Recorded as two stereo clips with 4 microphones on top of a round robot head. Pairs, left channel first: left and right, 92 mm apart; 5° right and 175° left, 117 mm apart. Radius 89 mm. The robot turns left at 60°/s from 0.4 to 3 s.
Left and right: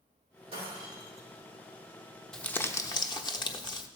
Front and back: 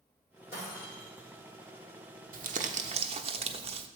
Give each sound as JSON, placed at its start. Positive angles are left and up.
{"t": 0.5, "sound": "breaking glass", "azimuth_deg": -110, "distance_m": 7.0}
{"t": 2.3, "sound": "crumpling", "azimuth_deg": 175, "distance_m": 1.1}